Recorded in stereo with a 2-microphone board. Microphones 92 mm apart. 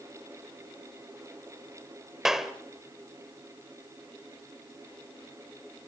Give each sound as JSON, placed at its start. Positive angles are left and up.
{"t": 2.2, "sound": "a clap", "side_deg": -5, "distance_m": 1.7}